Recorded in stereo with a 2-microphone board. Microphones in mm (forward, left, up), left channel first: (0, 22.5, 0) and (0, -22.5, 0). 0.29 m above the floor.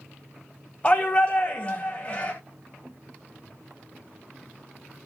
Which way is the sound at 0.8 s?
25° left (ahead or behind).